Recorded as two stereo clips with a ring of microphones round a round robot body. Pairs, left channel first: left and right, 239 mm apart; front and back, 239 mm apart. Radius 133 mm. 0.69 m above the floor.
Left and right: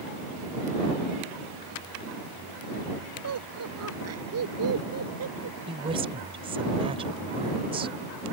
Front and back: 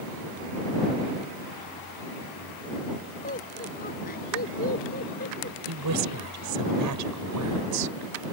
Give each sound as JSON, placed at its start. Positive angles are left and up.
{"t": 3.2, "sound": "laughter", "azimuth_deg": -65}
{"t": 5.7, "sound": "a woman speaking", "azimuth_deg": -160}